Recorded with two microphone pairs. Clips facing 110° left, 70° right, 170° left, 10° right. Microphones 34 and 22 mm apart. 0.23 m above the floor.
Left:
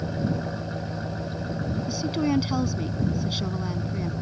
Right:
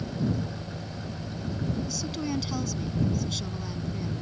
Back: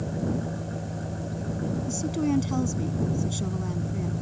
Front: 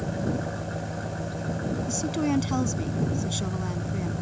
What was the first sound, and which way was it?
An engine running, 50° left.